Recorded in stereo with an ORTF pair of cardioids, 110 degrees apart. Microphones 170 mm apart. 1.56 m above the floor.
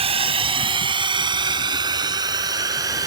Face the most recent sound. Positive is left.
turn(degrees=-20)